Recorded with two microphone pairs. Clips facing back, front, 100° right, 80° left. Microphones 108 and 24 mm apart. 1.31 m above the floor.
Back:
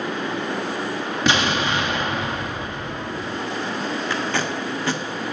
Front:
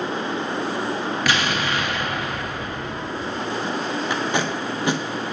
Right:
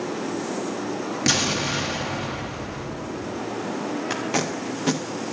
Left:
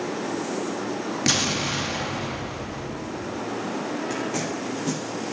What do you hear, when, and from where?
1.3 s an explosion: 175° left, 0.7 m
4.1 s tape being pulled: 70° right, 0.6 m